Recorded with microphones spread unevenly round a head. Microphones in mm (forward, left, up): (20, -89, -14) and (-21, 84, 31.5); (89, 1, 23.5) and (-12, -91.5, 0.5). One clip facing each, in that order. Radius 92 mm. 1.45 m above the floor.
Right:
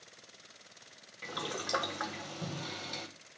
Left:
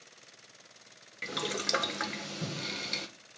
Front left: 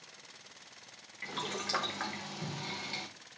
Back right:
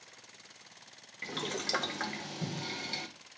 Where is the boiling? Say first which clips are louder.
Left 4 dB, back right 2 dB; 155° left, 0.8 m.